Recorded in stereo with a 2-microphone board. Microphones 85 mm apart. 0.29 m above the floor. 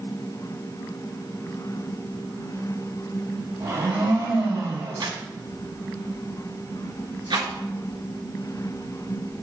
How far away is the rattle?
About 1.4 m.